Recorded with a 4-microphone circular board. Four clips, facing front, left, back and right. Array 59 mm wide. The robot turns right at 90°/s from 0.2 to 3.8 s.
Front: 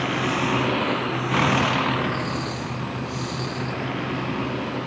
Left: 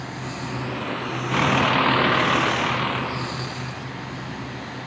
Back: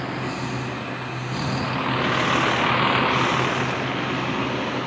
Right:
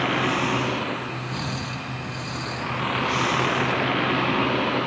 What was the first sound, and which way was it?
A vehicle, 65° right.